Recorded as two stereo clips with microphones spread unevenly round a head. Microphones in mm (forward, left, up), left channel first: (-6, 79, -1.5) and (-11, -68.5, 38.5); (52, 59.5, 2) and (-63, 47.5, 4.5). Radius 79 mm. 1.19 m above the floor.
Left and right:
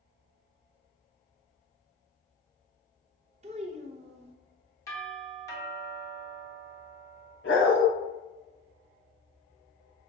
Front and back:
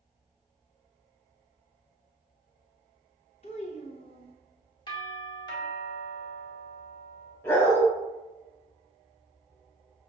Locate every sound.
3.4 s a child speaking: 45° right, 0.6 m
4.9 s a doorbell: 40° left, 1.7 m
7.4 s a dog barking: 70° left, 2.5 m